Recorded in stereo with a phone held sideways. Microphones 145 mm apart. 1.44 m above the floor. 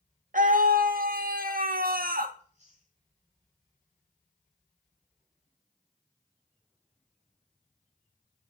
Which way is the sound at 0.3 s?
65° right (ahead or behind).